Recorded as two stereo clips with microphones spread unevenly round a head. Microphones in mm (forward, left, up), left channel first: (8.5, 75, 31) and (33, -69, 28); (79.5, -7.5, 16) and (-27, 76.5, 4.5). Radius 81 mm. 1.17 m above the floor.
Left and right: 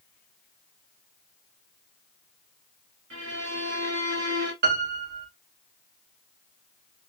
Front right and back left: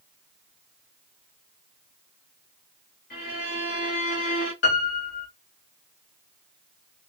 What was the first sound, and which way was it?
A violin, 85° right.